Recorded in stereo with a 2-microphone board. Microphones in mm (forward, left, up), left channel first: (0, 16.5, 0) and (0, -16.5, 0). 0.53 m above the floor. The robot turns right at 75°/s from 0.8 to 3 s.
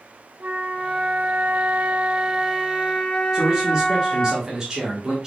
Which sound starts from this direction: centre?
A man speaking, at 3.3 s.